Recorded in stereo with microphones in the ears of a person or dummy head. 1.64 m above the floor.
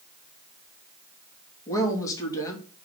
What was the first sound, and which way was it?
A woman speaking, 25° left (ahead or behind).